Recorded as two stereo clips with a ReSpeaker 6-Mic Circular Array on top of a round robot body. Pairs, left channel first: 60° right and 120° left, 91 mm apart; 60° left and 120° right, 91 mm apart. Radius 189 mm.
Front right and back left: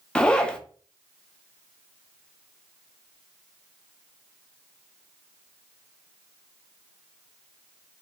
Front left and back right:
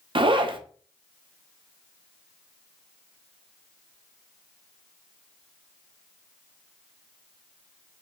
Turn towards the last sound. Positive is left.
turn(degrees=-140)